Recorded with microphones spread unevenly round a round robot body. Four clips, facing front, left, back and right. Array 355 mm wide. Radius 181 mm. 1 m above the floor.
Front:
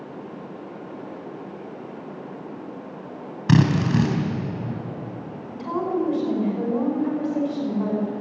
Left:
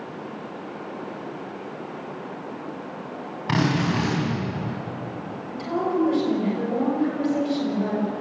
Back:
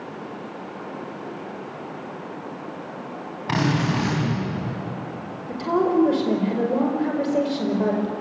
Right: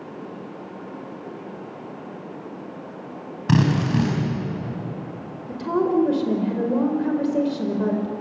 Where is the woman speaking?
130° right, 5 m.